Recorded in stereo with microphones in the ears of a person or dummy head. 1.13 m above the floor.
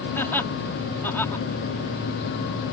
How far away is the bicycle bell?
No bicycle bell in this recording.